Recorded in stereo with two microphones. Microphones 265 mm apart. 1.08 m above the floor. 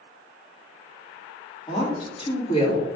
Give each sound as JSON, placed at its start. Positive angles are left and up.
{"t": 1.7, "sound": "a woman speaking", "side_deg": 20, "distance_m": 2.5}